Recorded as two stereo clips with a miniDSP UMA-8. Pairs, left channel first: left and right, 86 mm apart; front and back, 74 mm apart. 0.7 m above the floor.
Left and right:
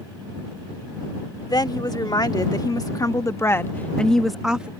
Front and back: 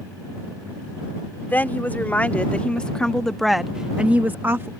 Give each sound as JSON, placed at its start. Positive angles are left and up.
{"t": 1.5, "sound": "a woman speaking", "azimuth_deg": 65}